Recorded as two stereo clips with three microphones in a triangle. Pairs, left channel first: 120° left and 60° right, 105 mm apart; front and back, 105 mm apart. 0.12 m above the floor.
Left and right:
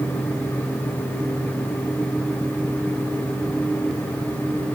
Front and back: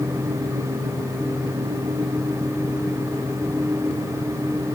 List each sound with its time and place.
Only background noise.